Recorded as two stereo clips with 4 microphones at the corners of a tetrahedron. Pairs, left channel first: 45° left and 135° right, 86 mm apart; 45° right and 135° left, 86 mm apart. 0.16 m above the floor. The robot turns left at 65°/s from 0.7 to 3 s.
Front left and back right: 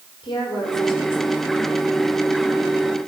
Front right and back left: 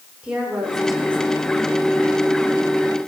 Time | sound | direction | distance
0.2 | a woman speaking | 55° left | 6.5 m